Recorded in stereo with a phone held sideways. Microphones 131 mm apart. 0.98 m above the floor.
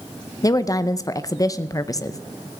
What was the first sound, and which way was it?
A woman speaking, 30° left (ahead or behind).